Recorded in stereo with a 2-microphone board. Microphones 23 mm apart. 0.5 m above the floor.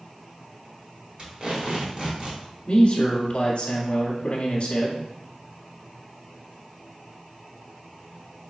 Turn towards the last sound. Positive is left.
turn(degrees=40)  # may be behind; listen again after turning